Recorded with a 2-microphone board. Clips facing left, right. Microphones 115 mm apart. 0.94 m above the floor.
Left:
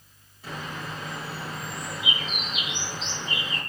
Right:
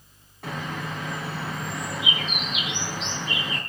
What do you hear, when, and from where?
0.4 s a bird: 75° right (ahead or behind), 3.5 m